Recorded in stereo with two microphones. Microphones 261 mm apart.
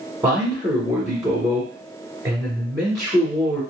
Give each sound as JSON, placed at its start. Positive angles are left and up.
{"t": 0.2, "sound": "a man speaking", "side_deg": -15, "distance_m": 1.2}